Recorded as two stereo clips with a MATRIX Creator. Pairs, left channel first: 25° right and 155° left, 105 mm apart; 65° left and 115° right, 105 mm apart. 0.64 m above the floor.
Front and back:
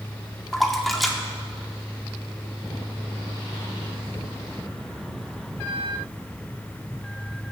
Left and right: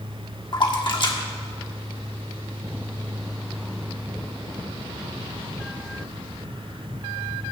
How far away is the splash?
About 1.6 m.